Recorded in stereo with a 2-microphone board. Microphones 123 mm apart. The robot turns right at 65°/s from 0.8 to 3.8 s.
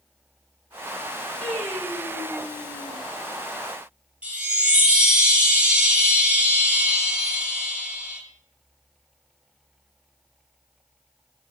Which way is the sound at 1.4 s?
5° left (ahead or behind).